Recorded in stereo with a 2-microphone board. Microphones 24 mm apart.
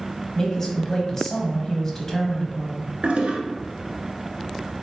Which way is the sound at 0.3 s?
25° left (ahead or behind).